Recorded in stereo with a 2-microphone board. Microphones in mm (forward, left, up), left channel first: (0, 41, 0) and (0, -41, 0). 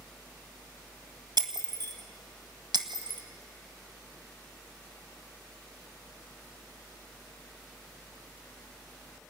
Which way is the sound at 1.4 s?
65° right (ahead or behind).